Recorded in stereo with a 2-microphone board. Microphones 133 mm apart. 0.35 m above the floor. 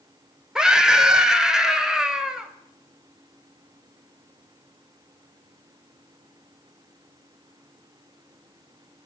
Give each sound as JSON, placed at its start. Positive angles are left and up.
{"t": 0.6, "sound": "a scream", "side_deg": -5, "distance_m": 1.3}